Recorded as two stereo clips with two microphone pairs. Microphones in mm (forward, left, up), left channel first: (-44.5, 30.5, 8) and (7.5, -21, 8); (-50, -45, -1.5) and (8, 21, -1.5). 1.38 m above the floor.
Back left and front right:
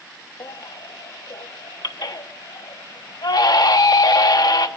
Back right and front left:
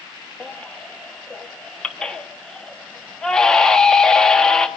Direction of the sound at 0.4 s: 145° left.